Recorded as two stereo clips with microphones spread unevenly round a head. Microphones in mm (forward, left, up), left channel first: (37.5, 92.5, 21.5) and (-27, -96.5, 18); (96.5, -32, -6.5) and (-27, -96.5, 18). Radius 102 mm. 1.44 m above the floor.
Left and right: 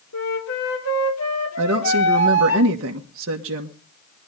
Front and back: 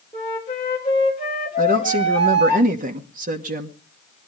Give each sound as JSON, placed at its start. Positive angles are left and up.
{"t": 0.1, "sound": "a flute", "azimuth_deg": 95, "distance_m": 3.0}
{"t": 1.6, "sound": "a woman speaking", "azimuth_deg": -135, "distance_m": 1.3}